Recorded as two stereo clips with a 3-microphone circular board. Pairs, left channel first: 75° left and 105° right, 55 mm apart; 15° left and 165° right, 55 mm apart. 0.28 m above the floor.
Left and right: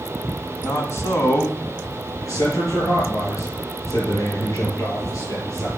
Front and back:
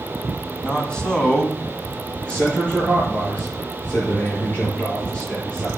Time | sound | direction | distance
0.6 | a man speaking | 85° left | 2.5 m
2.2 | a man speaking | 80° left | 6 m